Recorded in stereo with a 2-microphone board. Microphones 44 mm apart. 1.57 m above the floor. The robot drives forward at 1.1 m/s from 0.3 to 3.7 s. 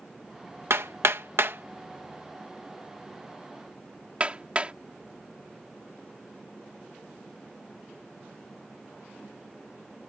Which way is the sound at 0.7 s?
85° right.